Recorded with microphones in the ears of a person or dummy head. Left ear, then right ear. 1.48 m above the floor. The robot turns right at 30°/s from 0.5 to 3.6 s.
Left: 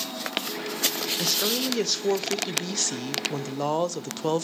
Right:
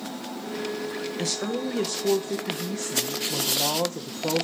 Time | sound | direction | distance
1.2 | a woman speaking | 10° left | 0.7 m